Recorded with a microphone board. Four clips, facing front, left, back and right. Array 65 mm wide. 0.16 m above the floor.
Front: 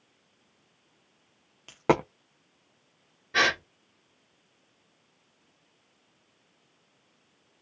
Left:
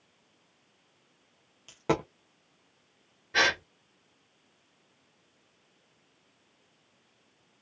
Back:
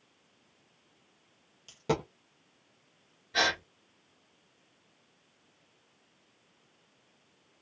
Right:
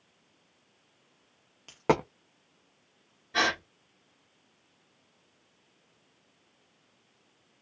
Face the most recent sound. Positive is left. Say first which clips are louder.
# left 2 dB, front 4 dB
turn(degrees=30)